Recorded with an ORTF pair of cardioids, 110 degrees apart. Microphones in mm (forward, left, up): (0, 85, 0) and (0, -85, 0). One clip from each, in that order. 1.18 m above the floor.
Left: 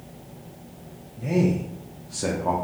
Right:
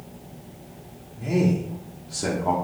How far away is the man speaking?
About 0.7 m.